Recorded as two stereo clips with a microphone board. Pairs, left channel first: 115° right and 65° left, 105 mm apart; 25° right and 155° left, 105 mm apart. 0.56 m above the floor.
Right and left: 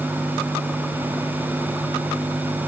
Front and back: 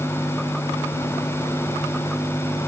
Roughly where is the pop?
No pop in this recording.